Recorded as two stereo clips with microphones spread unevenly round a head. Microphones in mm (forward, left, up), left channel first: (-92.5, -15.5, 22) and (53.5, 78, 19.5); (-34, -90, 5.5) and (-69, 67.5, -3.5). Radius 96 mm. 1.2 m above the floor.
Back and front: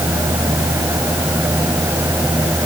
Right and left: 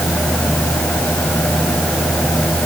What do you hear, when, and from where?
Only background noise.